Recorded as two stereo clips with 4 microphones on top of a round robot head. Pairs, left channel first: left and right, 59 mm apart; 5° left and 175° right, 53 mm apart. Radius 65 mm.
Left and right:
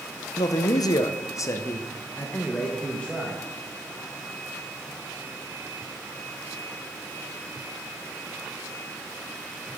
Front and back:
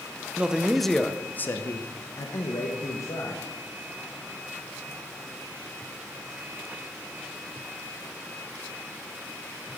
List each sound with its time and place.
0.4 s a man speaking: 115° left, 0.9 m; by 3.4 s 15° left, 2 m